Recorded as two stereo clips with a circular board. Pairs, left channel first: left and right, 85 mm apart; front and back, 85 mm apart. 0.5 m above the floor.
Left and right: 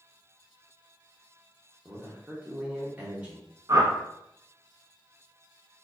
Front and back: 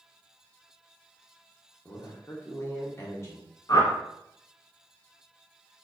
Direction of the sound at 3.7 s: 45° right.